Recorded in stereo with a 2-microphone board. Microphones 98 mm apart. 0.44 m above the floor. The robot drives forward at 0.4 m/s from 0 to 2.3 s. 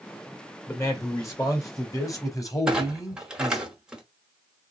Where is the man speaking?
30° left (ahead or behind), 1.9 m; by 3.7 s 35° left (ahead or behind), 1.7 m.